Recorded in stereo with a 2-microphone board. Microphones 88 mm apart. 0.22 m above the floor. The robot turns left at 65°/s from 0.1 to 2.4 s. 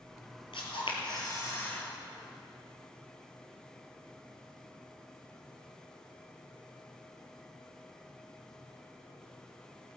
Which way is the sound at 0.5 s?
100° left.